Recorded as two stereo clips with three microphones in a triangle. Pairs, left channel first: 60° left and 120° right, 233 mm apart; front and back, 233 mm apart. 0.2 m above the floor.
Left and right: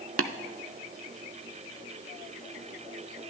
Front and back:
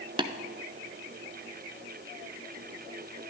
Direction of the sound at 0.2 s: 115° right.